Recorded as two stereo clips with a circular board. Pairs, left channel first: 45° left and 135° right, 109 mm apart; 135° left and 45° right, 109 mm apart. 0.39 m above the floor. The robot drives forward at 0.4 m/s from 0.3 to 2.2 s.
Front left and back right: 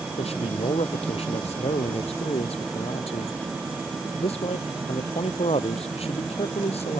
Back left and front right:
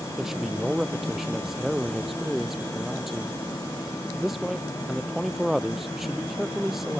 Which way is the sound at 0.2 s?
40° left.